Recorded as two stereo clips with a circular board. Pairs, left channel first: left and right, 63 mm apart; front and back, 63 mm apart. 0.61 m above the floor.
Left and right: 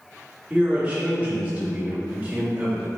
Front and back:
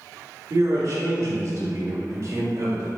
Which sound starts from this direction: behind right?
A man speaking, at 0.5 s.